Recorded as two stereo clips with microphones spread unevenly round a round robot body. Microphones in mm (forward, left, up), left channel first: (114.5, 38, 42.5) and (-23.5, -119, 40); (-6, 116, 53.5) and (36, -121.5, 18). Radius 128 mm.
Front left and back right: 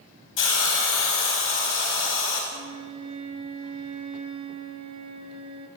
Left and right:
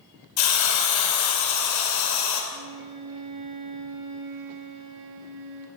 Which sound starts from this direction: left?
A hiss, at 0.4 s.